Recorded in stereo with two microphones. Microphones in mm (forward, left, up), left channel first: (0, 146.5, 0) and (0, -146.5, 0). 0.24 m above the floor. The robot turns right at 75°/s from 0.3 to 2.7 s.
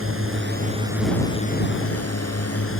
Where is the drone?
55° right; by 2.8 s 125° left.